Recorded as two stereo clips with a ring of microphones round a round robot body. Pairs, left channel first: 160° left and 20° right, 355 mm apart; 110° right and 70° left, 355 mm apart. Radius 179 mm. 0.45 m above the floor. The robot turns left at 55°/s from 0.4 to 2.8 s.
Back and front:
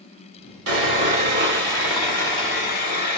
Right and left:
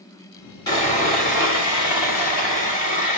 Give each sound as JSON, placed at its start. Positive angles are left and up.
{"t": 0.7, "sound": "sawing", "azimuth_deg": -40, "distance_m": 1.6}